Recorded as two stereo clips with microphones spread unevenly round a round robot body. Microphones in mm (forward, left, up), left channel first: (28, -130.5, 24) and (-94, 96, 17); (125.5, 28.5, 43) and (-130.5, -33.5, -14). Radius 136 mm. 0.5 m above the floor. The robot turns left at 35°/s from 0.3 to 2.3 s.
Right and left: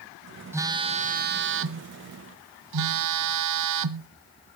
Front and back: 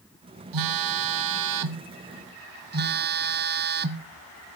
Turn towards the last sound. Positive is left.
turn(degrees=140)